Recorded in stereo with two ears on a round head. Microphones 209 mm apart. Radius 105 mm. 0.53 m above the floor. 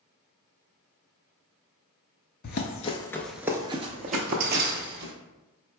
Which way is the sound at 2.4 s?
45° left (ahead or behind).